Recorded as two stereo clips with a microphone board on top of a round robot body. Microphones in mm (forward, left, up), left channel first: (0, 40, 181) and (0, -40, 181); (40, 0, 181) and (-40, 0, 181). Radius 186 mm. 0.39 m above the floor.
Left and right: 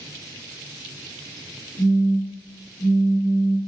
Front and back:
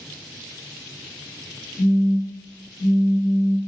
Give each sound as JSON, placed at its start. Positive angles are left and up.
{"t": 1.8, "sound": "a phone buzzing", "azimuth_deg": 20, "distance_m": 1.8}